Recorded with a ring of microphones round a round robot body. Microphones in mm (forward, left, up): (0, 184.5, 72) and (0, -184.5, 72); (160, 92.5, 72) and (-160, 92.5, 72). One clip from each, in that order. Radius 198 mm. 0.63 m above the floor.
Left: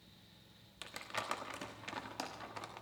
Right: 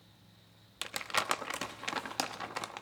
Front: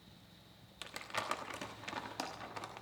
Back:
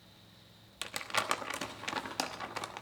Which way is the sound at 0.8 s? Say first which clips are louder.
Right 9 dB, back 7 dB; 120° right.